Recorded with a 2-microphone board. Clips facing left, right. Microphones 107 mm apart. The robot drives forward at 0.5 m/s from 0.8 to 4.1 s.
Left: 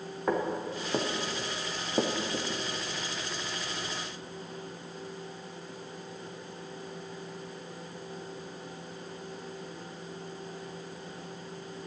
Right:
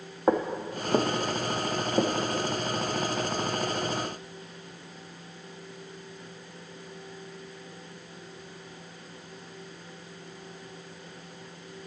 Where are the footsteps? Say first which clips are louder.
Right 4 dB; 30° right (ahead or behind), 1.2 m; by 2.5 s 5° left (ahead or behind), 1.0 m.